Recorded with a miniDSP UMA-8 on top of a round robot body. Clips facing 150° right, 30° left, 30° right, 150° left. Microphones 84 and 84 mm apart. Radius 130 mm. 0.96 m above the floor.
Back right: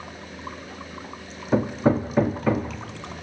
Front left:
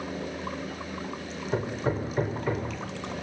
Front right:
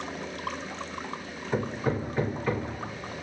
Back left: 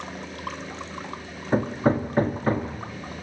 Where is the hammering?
160° right, 1.3 m.